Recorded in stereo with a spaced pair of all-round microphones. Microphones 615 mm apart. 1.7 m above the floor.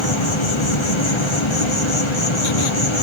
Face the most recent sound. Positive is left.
turn(degrees=50)  # may be behind; listen again after turning